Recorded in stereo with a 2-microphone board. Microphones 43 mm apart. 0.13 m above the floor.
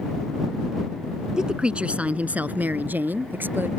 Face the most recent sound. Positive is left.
turn(degrees=-55)  # may be behind; listen again after turning